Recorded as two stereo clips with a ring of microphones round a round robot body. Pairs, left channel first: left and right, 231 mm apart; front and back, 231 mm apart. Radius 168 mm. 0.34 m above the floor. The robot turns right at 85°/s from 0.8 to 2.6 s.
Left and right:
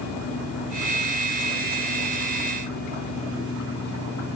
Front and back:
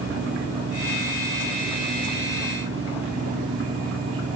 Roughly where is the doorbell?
No doorbell in this recording.